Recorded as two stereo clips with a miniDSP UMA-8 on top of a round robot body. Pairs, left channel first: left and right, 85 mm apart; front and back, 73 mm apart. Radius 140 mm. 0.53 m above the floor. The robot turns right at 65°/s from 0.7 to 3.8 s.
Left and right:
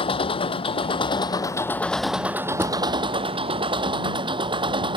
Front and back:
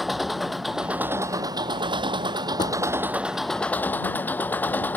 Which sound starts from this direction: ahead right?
A drawer, at 2.6 s.